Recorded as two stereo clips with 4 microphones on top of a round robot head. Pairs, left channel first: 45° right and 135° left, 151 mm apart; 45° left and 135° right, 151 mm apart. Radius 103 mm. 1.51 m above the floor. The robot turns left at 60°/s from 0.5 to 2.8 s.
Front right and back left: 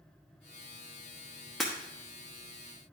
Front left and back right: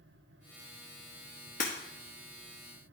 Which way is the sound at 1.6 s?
45° left.